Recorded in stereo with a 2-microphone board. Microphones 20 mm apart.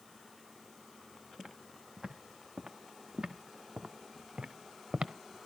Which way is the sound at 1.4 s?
40° right (ahead or behind).